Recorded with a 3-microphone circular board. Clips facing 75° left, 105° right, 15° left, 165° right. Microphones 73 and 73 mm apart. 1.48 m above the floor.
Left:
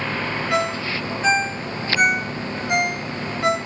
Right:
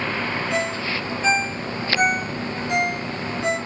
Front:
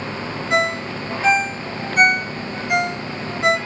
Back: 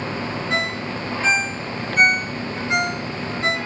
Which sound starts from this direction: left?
A ringtone, at 0.5 s.